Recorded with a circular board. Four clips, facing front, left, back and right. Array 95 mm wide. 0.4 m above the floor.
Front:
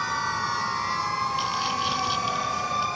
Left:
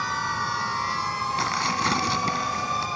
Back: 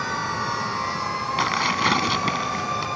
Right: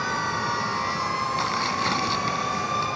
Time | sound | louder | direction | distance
1.4 | tearing paper | even, back 4 dB | 170° left | ?